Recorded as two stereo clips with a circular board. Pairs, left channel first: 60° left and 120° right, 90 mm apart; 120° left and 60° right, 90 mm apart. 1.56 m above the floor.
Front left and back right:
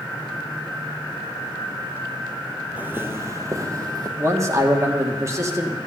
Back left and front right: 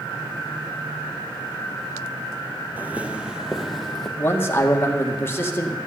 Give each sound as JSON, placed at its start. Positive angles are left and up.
{"t": 2.8, "sound": "footsteps", "azimuth_deg": -90, "distance_m": 1.6}
{"t": 4.2, "sound": "a man speaking", "azimuth_deg": -175, "distance_m": 2.0}